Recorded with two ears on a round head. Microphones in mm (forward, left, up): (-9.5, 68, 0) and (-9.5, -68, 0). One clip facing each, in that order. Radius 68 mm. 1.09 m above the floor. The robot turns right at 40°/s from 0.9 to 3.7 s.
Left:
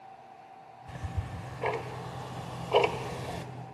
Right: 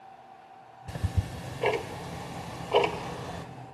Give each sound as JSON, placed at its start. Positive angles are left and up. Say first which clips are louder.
{"t": 0.9, "sound": "ticking", "louder": "right 5 dB", "side_deg": -45, "distance_m": 1.1}